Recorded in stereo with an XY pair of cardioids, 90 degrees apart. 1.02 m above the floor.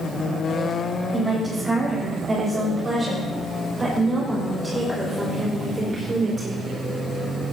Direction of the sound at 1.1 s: 20° right.